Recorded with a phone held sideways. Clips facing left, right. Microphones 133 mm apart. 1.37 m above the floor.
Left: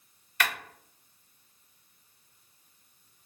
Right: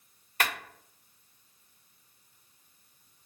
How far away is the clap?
About 1.5 m.